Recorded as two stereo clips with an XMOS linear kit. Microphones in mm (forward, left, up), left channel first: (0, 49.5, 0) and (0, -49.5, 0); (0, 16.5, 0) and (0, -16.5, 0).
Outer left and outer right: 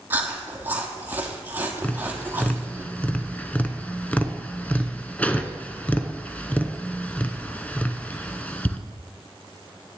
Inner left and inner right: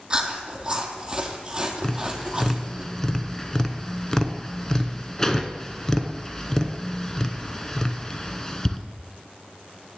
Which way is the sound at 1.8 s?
15° left (ahead or behind).